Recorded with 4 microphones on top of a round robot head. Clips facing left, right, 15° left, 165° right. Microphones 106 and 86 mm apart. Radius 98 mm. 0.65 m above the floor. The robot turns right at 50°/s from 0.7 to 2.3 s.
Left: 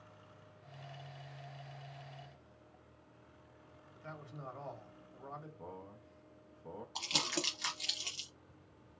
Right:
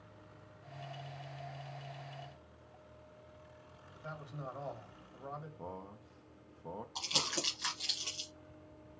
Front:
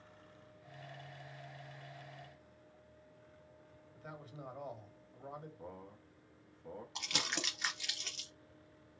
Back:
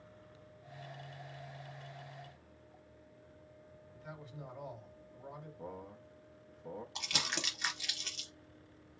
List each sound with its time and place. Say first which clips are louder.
4.0 s a man speaking: right 3 dB, even; 20° right, 1.6 m
5.6 s a man speaking: right 3 dB, back 4 dB; 100° right, 0.6 m
7.0 s crumpling: left 3 dB, front 1 dB; 100° left, 0.5 m